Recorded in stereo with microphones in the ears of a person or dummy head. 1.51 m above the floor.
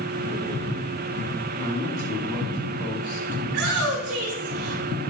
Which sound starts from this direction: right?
A shout, at 3.5 s.